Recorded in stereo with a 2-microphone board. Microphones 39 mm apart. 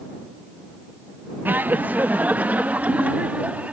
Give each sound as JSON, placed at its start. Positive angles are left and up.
{"t": 1.4, "sound": "laughter", "side_deg": -50}